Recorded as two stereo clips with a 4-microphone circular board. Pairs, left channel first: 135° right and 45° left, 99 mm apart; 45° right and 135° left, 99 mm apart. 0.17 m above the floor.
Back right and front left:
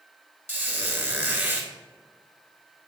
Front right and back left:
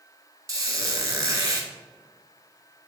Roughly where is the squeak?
Left.